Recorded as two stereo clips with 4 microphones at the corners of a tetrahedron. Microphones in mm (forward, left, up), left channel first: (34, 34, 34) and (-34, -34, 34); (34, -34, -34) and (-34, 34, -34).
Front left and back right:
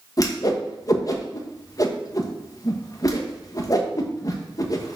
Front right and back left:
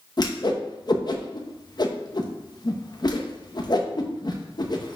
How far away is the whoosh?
About 1.0 m.